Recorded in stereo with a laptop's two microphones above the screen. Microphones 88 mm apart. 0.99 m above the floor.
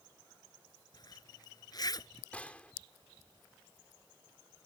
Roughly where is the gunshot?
Centre.